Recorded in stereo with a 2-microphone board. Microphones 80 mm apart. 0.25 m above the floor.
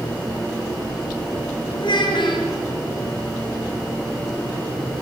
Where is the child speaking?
75° left (ahead or behind), 3.5 m.